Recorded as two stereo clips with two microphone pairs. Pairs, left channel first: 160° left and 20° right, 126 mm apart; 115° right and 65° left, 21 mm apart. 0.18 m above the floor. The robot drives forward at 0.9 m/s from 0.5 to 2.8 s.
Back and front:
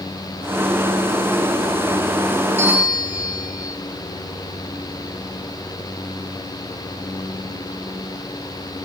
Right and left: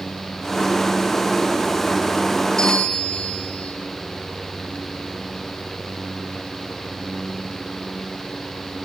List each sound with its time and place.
2.6 s a bell: 80° right, 1.1 m; by 3.8 s 100° right, 1.1 m